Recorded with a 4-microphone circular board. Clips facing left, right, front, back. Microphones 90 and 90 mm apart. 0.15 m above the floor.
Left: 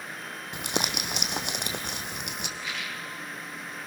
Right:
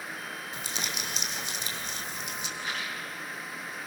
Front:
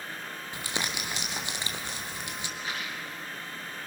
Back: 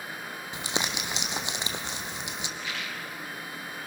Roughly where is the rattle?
Ahead right.